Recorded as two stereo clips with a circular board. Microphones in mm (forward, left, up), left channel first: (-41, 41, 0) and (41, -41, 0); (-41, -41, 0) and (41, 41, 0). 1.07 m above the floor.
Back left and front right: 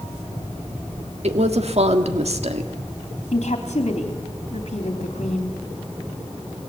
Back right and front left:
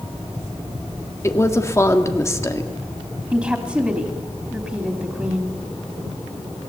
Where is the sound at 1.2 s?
70° right, 1.7 m.